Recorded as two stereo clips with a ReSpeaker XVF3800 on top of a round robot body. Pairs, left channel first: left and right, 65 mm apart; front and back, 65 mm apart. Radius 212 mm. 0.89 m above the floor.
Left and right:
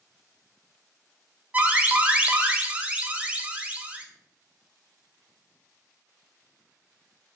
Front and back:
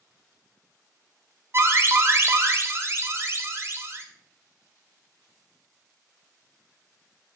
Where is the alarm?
150° right, 0.5 m.